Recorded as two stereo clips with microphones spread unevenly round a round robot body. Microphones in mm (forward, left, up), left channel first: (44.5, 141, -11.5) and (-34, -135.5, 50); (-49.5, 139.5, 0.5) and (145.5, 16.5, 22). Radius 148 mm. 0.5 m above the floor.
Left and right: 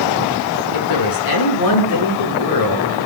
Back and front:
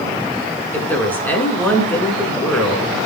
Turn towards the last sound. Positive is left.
turn(degrees=65)